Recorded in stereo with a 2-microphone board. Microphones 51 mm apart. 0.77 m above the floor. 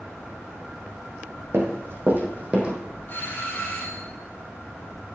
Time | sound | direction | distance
1.5 | running footsteps | 60° right (ahead or behind) | 2.5 m
3.1 | a doorbell | 45° left (ahead or behind) | 5 m